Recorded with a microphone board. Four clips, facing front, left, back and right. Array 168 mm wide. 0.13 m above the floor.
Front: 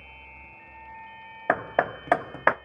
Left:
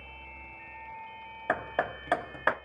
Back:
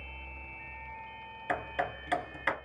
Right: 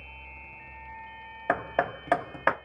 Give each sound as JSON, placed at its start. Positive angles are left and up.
{"t": 1.5, "sound": "hammering", "azimuth_deg": -15, "distance_m": 0.5}